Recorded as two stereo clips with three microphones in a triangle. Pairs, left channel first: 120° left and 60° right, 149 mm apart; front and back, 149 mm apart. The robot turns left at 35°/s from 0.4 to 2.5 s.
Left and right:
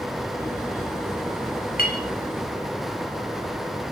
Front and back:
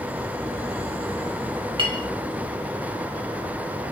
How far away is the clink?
About 1.3 m.